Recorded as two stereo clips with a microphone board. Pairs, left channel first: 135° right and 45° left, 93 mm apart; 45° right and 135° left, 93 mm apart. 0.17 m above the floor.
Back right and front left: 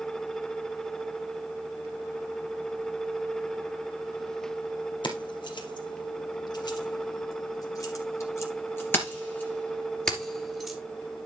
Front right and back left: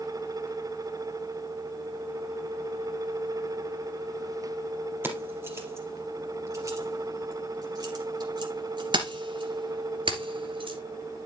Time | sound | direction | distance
5.0 | keys jangling | 160° right | 3.5 m